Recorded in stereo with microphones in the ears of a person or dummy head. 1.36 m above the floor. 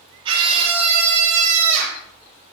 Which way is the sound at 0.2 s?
25° right (ahead or behind).